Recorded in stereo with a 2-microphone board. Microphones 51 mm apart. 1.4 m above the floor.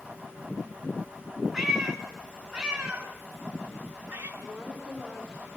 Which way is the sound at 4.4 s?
15° right (ahead or behind).